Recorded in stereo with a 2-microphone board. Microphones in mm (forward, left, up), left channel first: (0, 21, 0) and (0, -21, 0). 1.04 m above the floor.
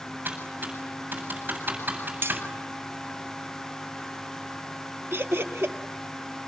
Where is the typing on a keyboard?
55° right (ahead or behind), 8 m.